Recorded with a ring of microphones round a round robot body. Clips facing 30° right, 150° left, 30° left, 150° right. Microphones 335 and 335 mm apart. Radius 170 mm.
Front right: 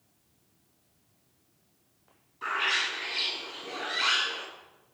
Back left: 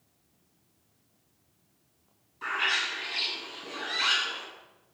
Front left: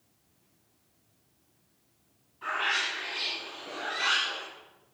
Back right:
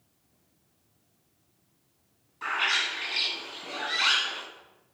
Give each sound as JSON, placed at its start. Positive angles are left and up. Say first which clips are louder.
{"t": 2.4, "sound": "a bird", "louder": "front right 1 dB, even", "azimuth_deg": -125, "distance_m": 3.0}